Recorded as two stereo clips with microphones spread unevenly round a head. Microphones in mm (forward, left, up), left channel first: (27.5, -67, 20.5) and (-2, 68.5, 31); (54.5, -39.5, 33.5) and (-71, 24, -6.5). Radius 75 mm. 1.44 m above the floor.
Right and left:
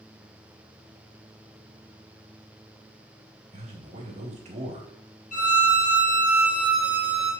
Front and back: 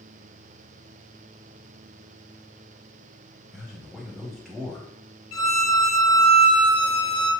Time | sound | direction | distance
3.5 | a man speaking | 60° left | 2 m
5.3 | a violin | 40° right | 3 m